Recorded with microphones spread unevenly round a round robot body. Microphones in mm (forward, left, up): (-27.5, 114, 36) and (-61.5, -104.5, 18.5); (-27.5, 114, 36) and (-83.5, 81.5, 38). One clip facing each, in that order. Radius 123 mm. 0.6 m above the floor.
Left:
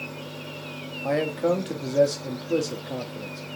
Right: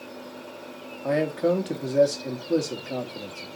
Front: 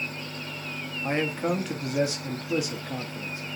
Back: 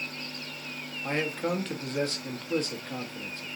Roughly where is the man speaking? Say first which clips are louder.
Right 1 dB, front 3 dB; ahead right.